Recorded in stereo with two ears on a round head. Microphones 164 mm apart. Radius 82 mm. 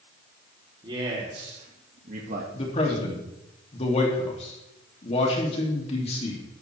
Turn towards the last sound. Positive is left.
turn(degrees=35)  # may be behind; listen again after turning